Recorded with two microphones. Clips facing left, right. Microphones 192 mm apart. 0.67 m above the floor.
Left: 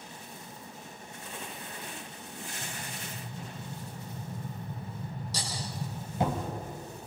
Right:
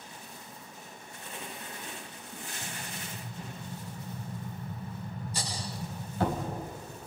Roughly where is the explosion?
Centre.